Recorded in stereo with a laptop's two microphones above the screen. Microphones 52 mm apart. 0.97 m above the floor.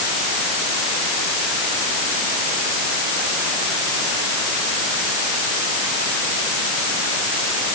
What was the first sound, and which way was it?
Only background noise.